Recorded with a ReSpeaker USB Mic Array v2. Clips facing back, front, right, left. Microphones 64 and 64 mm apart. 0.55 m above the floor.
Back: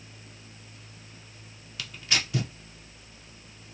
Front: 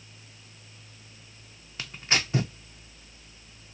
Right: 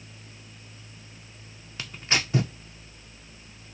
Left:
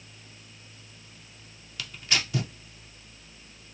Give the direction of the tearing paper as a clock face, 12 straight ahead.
1 o'clock.